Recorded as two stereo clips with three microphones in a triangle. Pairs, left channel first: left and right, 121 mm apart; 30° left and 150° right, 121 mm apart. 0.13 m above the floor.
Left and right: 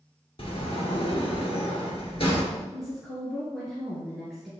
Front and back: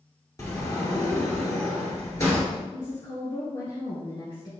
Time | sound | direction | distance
0.4 | a sliding door | 85° left | 2 m
2.7 | a woman speaking | straight ahead | 2 m